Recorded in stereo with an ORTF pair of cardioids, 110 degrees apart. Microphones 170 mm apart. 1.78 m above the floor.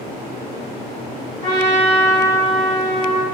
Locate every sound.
1.4 s a trumpet: 25° left, 1.9 m